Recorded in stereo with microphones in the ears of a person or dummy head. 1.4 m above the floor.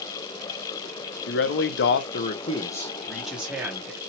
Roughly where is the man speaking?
Left.